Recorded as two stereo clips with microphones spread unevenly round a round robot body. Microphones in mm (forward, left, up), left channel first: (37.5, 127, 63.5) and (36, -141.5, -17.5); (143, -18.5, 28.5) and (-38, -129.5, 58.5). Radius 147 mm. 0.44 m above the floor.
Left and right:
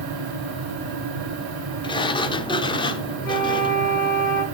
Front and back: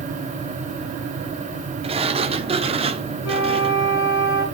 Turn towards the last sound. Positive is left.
turn(degrees=10)